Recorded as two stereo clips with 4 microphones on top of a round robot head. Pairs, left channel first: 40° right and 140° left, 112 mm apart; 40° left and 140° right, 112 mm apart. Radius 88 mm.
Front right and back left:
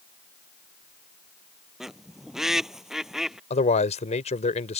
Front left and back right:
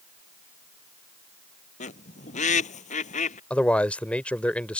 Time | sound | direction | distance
1.8 | a bird | 55° left | ?
3.5 | a man speaking | 40° right | ?